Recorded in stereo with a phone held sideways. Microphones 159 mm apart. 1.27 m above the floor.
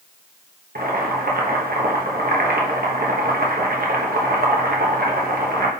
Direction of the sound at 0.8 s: 60° right (ahead or behind).